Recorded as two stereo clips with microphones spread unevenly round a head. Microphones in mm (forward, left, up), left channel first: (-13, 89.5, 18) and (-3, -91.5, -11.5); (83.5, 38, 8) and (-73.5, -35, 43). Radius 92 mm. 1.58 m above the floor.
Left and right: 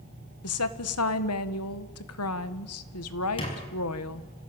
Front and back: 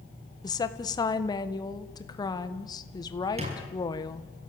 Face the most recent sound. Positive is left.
turn(degrees=150)